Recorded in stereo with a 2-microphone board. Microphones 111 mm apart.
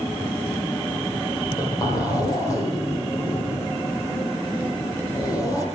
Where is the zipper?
35° left (ahead or behind), 8.5 m.